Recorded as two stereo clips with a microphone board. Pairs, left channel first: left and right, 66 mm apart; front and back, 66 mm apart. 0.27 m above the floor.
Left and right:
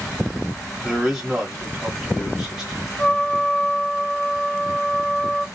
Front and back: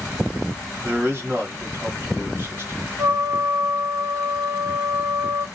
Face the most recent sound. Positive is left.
turn(degrees=170)